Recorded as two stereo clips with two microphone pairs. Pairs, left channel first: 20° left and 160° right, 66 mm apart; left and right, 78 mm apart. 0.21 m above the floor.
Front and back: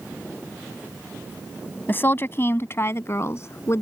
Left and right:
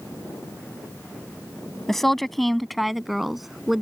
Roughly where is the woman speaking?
Ahead.